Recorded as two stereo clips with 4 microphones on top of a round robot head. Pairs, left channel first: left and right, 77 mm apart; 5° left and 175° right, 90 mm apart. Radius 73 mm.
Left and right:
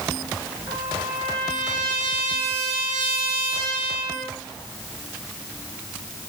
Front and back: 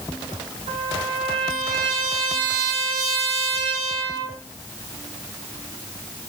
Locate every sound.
0.7 s a trumpet: 145° right, 5.5 m